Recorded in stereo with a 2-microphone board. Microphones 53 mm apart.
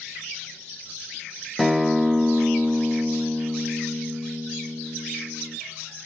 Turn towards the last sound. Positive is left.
turn(degrees=0)  # may be behind; listen again after turning